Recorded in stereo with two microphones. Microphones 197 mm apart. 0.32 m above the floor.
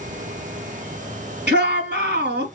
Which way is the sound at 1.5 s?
60° right (ahead or behind).